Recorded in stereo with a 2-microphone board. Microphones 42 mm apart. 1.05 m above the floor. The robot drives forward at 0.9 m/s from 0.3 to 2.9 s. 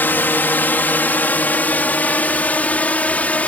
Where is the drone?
55° left (ahead or behind); by 3.5 s 40° left (ahead or behind).